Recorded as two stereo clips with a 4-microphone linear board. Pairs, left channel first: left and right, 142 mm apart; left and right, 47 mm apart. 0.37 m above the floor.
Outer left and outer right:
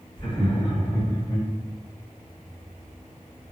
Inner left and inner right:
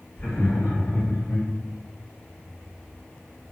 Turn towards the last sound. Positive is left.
turn(degrees=40)  # may be behind; listen again after turning